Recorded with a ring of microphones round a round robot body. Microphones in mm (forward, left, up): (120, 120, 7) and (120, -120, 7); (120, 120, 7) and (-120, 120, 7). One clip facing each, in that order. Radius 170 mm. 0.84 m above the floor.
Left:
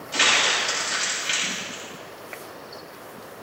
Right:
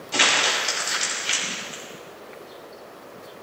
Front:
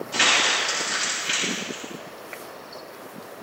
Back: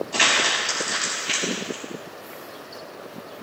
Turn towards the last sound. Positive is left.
turn(degrees=-60)